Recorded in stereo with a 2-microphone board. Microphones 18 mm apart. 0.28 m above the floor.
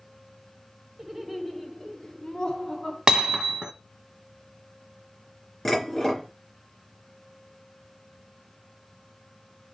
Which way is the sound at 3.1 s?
40° right (ahead or behind).